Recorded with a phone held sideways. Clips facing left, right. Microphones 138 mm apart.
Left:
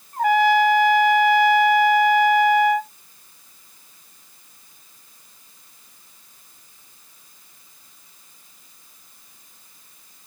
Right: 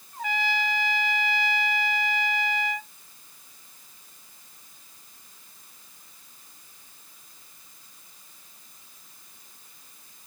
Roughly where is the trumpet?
Left.